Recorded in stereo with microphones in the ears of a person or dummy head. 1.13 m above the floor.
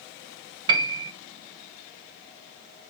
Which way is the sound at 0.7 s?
30° right (ahead or behind).